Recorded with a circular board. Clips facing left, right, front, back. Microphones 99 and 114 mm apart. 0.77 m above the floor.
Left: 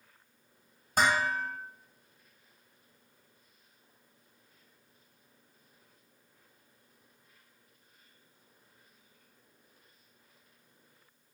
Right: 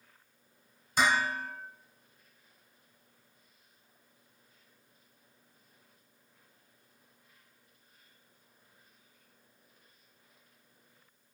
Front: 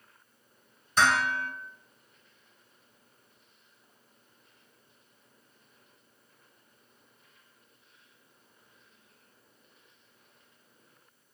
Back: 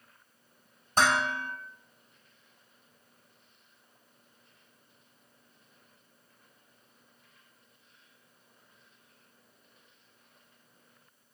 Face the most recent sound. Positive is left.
turn(degrees=130)